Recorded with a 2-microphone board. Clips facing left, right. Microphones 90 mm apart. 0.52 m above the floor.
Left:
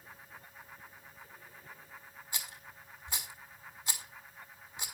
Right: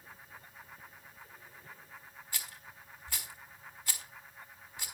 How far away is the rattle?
About 1.7 m.